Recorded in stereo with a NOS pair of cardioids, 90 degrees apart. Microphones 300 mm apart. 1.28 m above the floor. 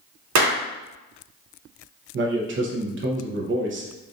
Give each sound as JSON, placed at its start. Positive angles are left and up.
{"t": 0.3, "sound": "a clap", "azimuth_deg": -65, "distance_m": 0.6}
{"t": 2.1, "sound": "a man speaking", "azimuth_deg": -40, "distance_m": 0.8}